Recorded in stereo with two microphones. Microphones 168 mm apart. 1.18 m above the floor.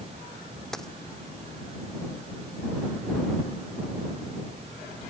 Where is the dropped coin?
Centre (ahead or behind).